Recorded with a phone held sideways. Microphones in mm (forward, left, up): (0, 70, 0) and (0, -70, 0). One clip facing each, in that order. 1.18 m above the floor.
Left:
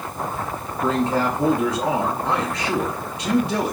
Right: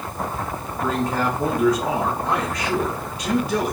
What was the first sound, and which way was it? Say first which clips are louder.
A man speaking: left 2 dB; 20° left (ahead or behind).